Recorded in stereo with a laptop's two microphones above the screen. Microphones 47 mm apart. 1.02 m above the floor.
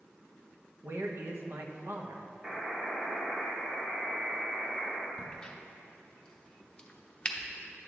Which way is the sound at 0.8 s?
60° right (ahead or behind).